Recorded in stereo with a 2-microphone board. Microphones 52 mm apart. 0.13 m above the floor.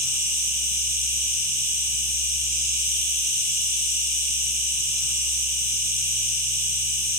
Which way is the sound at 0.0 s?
80° right.